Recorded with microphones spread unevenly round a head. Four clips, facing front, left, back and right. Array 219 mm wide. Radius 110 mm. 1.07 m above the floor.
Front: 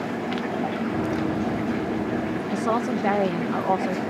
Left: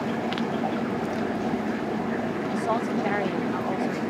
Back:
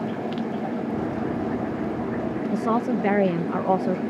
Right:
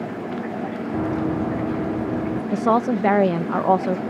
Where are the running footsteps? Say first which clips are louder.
Right 5 dB, front 2 dB; 70° right; by 2.4 s 85° right.